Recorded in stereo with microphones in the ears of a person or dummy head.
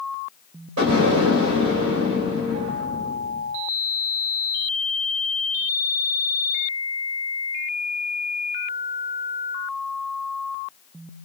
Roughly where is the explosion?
Right.